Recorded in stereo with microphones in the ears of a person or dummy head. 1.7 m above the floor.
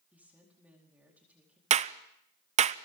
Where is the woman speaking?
10° right (ahead or behind), 4.5 m.